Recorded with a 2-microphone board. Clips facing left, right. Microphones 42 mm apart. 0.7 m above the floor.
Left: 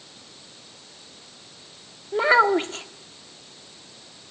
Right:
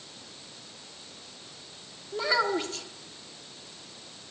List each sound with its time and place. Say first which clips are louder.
2.1 s a child speaking: left 9 dB; 40° left (ahead or behind), 1.0 m